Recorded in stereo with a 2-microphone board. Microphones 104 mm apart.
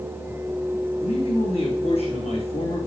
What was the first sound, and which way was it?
A man speaking, 70° left (ahead or behind).